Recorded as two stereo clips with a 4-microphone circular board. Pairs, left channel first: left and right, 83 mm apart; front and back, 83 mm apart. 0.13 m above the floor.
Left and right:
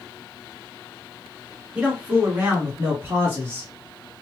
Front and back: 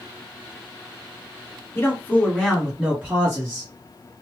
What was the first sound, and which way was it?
A man speaking, 25° right.